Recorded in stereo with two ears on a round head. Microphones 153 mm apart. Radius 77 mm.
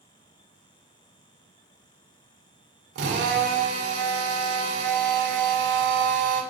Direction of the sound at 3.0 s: 75° right (ahead or behind).